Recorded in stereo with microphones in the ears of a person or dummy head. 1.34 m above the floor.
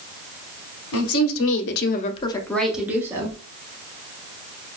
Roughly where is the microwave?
I don't hear a microwave.